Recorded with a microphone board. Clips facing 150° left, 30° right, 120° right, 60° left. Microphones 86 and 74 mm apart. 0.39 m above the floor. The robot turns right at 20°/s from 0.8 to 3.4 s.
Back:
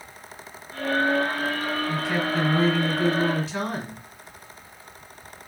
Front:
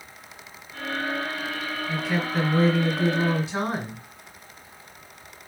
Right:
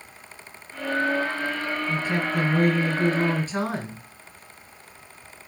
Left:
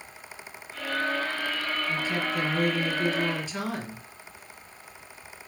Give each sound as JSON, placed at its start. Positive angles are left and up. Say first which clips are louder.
{"t": 1.9, "sound": "a woman speaking", "louder": "front 2 dB, right 4 dB", "azimuth_deg": -130, "distance_m": 1.9}